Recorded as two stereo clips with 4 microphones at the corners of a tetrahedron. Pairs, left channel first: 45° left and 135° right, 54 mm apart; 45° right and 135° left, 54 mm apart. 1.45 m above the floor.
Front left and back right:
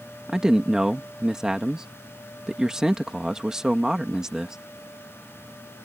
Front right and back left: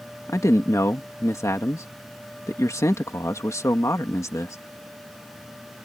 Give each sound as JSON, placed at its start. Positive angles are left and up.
{"t": 0.3, "sound": "a man speaking", "azimuth_deg": -55}